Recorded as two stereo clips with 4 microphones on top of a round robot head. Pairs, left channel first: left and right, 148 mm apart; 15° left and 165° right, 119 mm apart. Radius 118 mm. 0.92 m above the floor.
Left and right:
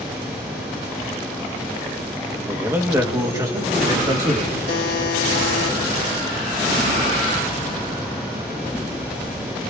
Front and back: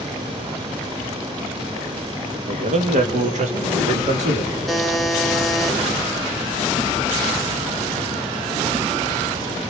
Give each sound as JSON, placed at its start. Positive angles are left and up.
{"t": 2.5, "sound": "a man speaking", "azimuth_deg": -165, "distance_m": 1.5}
{"t": 4.7, "sound": "a buzzer", "azimuth_deg": 105, "distance_m": 1.3}